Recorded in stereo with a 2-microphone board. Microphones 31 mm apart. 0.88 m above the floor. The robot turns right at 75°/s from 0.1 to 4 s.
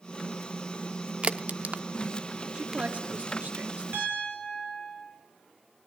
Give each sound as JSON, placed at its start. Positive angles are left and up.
{"t": 1.2, "sound": "a crack", "side_deg": -45, "distance_m": 0.6}
{"t": 2.5, "sound": "a man speaking", "side_deg": -30, "distance_m": 1.6}
{"t": 3.9, "sound": "a piano", "side_deg": -85, "distance_m": 10.0}